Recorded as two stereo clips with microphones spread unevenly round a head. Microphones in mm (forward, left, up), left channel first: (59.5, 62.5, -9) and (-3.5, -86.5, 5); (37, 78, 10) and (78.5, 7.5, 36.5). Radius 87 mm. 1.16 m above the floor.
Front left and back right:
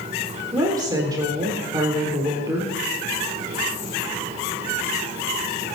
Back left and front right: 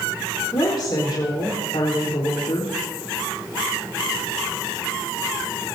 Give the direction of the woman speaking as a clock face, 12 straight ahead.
6 o'clock.